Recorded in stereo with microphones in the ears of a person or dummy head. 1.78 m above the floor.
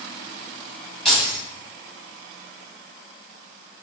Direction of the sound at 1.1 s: 5° left (ahead or behind).